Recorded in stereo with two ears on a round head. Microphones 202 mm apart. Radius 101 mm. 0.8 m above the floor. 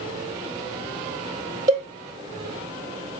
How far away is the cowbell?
About 0.7 m.